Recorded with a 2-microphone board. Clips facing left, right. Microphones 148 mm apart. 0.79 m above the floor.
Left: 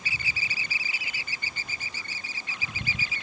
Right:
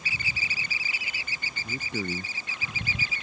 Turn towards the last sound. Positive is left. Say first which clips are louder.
# right 12 dB
turn(degrees=-60)  # may be behind; listen again after turning